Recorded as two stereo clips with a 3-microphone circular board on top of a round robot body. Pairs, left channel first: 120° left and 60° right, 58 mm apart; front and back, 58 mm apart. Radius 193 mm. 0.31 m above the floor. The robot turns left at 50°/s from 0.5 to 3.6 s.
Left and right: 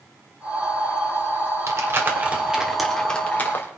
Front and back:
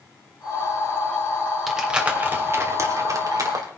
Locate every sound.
1.7 s crumpling: 95° right, 2.5 m; by 3.7 s 170° left, 2.5 m